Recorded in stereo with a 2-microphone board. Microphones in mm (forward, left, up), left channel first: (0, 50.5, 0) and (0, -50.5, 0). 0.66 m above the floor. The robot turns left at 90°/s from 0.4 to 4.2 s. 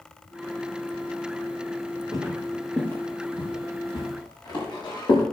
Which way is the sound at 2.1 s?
40° right (ahead or behind).